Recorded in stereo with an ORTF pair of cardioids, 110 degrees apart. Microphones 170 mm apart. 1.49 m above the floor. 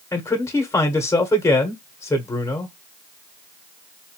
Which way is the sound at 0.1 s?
15° left.